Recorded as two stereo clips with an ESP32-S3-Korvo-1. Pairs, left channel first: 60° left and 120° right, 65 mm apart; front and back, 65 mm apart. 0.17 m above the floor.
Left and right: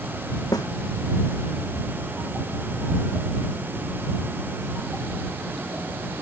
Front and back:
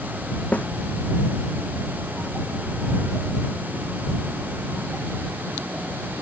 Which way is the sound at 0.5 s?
70° left.